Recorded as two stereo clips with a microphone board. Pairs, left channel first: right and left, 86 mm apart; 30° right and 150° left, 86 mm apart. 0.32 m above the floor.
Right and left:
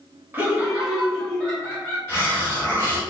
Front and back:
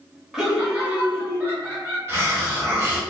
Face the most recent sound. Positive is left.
turn(degrees=-150)